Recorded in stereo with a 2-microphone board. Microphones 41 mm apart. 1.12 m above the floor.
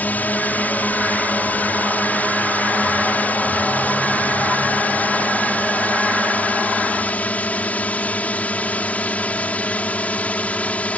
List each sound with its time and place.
0.0 s a drone: 40° left (ahead or behind); by 11.0 s 30° left (ahead or behind)